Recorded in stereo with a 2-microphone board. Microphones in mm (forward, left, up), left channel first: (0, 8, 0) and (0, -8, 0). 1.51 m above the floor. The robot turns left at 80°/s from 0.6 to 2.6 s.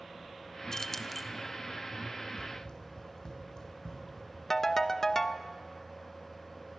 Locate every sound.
0.7 s keys jangling: 45° left, 0.8 m; by 1.3 s straight ahead, 0.8 m
2.4 s running footsteps: 55° left (ahead or behind), 3 m; by 4.3 s 50° left (ahead or behind), 4 m
4.5 s a ringtone: 30° left (ahead or behind), 0.7 m